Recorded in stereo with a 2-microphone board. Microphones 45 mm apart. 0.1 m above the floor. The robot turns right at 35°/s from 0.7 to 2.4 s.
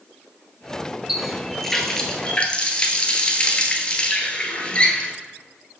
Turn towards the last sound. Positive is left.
turn(degrees=35)